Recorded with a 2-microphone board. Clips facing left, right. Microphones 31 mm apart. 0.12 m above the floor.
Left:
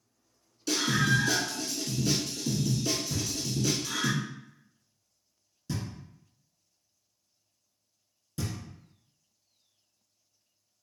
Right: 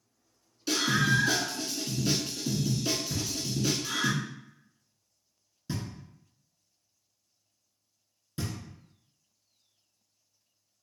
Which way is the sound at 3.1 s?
25° right (ahead or behind).